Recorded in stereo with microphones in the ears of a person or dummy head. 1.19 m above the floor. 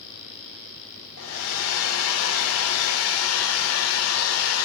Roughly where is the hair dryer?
Left.